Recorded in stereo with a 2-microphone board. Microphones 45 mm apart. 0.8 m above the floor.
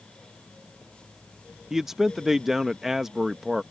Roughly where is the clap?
I don't hear a clap.